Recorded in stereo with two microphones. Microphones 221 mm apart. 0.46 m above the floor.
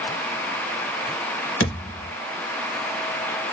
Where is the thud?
85° left, 0.9 m.